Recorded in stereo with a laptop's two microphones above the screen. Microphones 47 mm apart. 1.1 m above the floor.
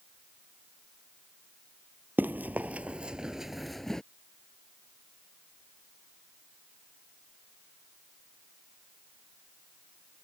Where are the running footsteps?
45° right (ahead or behind); by 4.0 s 10° left (ahead or behind).